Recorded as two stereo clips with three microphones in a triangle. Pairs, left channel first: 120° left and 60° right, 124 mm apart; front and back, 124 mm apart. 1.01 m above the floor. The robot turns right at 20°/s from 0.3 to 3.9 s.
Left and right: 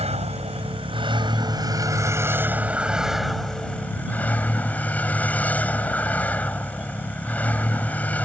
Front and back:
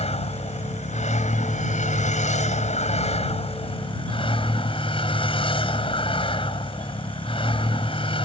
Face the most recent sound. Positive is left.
turn(degrees=45)